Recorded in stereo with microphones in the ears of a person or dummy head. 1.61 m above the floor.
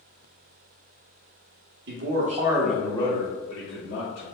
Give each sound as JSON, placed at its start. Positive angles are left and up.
{"t": 1.9, "sound": "a man speaking", "side_deg": -65, "distance_m": 0.8}